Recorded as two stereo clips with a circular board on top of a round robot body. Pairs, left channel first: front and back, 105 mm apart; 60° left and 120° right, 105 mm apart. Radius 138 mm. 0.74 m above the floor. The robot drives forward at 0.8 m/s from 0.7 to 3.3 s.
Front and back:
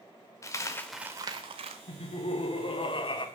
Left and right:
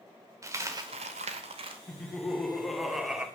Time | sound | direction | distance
0.4 | a dropped coin | 60° right | 0.5 m
1.9 | laughter | 25° right | 2.5 m